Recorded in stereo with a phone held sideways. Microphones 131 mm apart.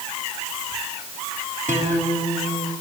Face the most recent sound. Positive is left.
turn(degrees=-85)